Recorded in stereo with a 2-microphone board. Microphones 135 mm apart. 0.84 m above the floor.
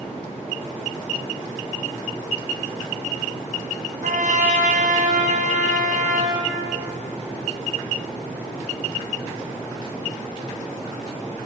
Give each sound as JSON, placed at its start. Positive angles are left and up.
{"t": 4.0, "sound": "a trumpet", "side_deg": -75, "distance_m": 4.0}